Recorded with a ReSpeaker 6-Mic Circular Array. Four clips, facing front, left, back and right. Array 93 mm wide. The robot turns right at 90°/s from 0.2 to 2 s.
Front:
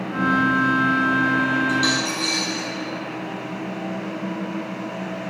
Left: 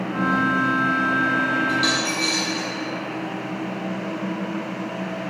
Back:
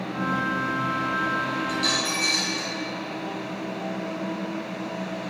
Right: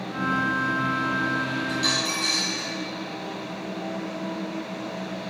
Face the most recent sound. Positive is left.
turn(degrees=70)